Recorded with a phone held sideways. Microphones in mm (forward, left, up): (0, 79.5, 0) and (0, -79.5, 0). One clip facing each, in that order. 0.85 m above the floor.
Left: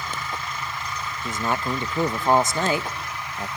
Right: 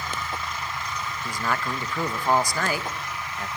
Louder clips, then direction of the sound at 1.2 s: Left 3 dB; 25° left (ahead or behind).